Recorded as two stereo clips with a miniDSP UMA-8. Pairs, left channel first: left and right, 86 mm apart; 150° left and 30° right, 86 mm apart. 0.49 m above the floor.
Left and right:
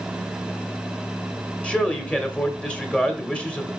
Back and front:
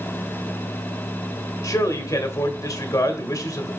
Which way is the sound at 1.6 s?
165° left.